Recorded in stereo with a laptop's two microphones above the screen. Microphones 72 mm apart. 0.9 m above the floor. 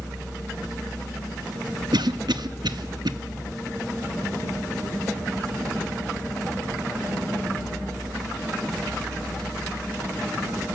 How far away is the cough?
About 1.3 m.